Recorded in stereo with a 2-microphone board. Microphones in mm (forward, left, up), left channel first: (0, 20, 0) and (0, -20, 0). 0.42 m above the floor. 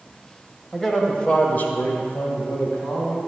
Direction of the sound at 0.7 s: 10° left (ahead or behind).